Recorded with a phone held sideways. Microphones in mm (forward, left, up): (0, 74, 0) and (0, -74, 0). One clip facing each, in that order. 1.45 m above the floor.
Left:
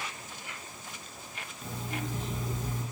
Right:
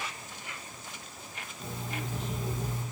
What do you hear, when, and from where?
1.6 s an alarm clock: 60° right (ahead or behind), 1.5 m